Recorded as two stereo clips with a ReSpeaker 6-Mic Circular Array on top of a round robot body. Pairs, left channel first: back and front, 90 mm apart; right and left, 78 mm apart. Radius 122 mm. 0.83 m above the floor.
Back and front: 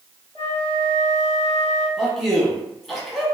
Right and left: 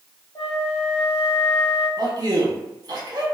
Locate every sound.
0.3 s a flute: 65° right, 0.8 m
2.0 s a man speaking: 90° left, 1.1 m